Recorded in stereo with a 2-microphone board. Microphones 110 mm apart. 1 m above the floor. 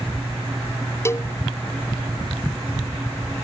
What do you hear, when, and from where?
1.1 s a cowbell: 25° left (ahead or behind)